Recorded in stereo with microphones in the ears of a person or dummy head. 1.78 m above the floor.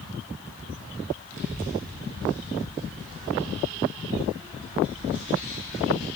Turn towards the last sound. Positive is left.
turn(degrees=10)  # may be behind; listen again after turning